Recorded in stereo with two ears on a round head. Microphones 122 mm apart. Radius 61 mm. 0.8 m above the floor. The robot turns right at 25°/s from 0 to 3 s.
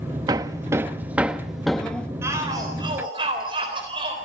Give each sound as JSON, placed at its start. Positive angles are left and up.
{"t": 0.3, "sound": "hammering", "side_deg": -25, "distance_m": 0.9}
{"t": 2.2, "sound": "a shout", "side_deg": -20, "distance_m": 4.0}